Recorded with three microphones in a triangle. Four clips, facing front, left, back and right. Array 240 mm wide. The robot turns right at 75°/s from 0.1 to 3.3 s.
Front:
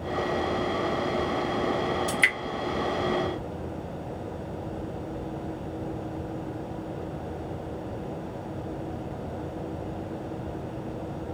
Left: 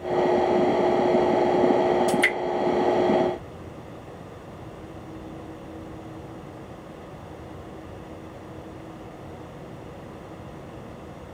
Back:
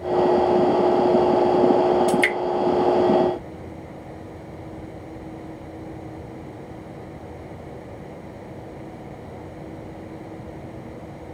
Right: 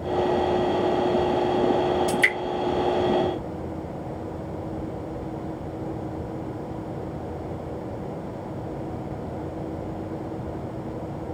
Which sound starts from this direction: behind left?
Dripping, at 2.1 s.